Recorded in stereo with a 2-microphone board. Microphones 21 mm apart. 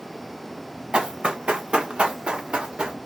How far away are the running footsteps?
About 1.2 m.